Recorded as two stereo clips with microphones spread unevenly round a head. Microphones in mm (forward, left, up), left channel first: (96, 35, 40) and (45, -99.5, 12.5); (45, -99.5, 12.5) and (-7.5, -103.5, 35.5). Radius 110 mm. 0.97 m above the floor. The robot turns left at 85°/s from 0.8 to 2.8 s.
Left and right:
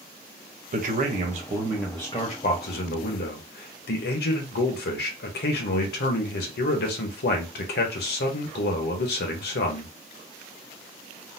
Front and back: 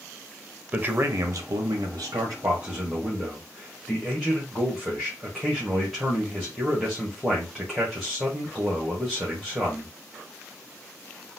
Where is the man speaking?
105° right, 0.9 m; by 9.9 s 85° left, 0.9 m.